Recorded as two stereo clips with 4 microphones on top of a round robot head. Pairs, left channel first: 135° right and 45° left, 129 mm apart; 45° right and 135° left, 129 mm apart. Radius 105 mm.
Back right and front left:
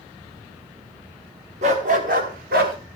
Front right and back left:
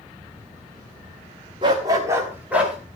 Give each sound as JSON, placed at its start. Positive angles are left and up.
{"t": 1.6, "sound": "a dog barking", "azimuth_deg": 80, "distance_m": 1.5}